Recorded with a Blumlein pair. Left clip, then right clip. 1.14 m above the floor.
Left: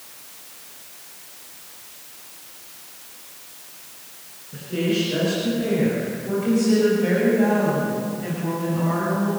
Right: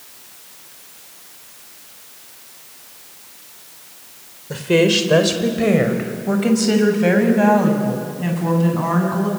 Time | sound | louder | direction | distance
4.5 | a woman speaking | right 10 dB | 45° right | 4 m